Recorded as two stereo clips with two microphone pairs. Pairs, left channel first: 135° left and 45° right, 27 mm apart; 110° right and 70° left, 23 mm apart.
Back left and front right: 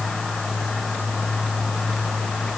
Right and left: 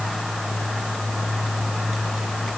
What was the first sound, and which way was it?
Only background noise.